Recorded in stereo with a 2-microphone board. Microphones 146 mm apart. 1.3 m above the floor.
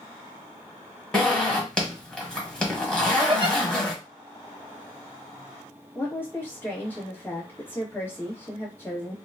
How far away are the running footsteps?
No running footsteps in this recording.